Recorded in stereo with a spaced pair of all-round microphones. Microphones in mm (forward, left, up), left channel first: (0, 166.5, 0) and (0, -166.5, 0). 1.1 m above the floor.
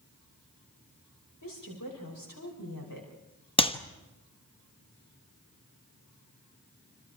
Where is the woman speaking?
75° left (ahead or behind), 5.5 m.